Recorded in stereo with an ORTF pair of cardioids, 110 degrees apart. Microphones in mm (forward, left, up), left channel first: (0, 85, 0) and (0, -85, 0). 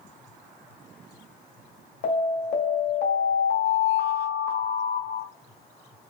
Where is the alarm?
65° left, 1.9 m.